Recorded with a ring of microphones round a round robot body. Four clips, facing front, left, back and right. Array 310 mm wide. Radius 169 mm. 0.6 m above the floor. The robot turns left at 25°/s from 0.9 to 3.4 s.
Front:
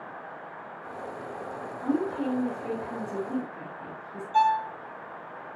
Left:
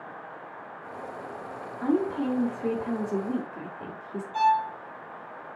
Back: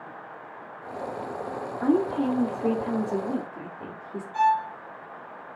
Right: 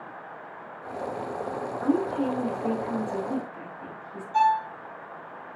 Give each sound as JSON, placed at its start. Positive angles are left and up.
{"t": 1.8, "sound": "a woman speaking", "azimuth_deg": -175, "distance_m": 2.5}
{"t": 4.3, "sound": "a violin", "azimuth_deg": -35, "distance_m": 1.9}